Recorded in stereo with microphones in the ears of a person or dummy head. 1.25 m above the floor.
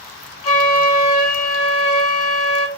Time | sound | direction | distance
0.4 | a flute | 30° left (ahead or behind) | 0.7 m